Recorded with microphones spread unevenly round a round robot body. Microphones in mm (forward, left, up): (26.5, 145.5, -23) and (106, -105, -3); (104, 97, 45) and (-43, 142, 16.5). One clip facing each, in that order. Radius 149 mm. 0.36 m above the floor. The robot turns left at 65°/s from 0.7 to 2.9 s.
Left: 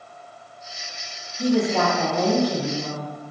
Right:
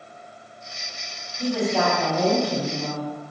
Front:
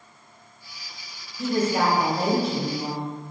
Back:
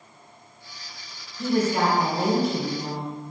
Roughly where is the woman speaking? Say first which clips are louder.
Left 3 dB, even; ahead left.